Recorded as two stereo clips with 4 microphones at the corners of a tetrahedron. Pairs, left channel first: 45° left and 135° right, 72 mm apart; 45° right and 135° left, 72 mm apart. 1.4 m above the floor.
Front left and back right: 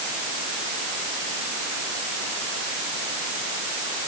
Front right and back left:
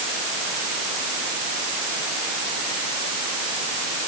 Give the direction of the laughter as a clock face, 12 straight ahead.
I don't hear laughter.